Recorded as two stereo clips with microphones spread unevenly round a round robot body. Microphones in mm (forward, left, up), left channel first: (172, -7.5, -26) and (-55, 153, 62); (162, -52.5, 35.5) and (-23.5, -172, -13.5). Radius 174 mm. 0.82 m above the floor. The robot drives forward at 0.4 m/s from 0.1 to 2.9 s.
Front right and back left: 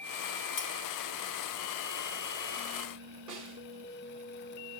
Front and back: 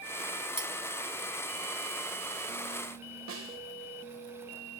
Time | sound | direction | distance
0.6 | cutlery clinking | 75° right | 4 m
3.3 | a snare drum | 135° right | 4 m